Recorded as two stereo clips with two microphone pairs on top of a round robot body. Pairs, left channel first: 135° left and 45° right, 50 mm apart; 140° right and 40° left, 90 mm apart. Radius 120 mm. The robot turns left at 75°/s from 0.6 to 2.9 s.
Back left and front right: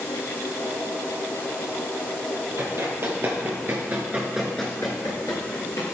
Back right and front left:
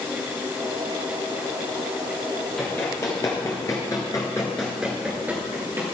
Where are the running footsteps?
50° right, 2 m; by 5.8 s 105° left, 1.5 m.